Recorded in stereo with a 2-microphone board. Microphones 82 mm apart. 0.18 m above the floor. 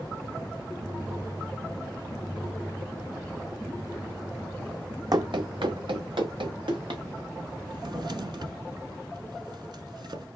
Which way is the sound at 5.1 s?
50° right (ahead or behind).